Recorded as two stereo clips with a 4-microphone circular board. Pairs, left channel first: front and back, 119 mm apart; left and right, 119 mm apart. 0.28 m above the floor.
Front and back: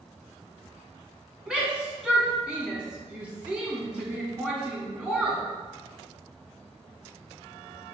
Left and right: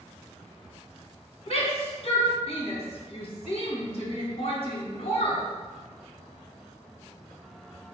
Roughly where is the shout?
Left.